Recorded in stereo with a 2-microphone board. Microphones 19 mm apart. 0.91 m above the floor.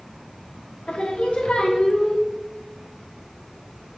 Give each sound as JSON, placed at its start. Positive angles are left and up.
{"t": 0.9, "sound": "singing", "side_deg": 70, "distance_m": 0.7}